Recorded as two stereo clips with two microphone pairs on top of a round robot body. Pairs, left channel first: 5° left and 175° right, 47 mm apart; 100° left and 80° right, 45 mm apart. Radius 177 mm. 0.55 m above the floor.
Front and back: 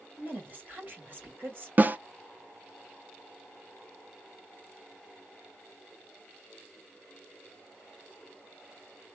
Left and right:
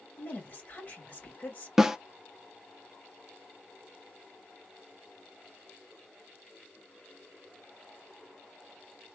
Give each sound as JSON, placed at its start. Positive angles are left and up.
{"t": 0.2, "sound": "a woman speaking", "azimuth_deg": 135, "distance_m": 2.0}
{"t": 1.8, "sound": "a snare drum", "azimuth_deg": -160, "distance_m": 0.6}